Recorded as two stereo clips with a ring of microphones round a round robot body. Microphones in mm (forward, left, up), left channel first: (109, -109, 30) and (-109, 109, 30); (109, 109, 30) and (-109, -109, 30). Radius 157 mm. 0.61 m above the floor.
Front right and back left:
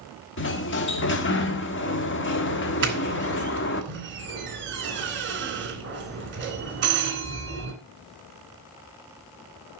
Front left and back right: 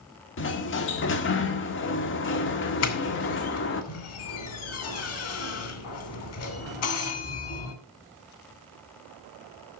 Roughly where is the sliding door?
Ahead.